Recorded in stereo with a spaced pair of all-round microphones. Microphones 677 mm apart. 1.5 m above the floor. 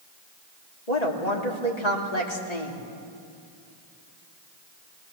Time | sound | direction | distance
0.9 | a woman speaking | 65° left (ahead or behind) | 3 m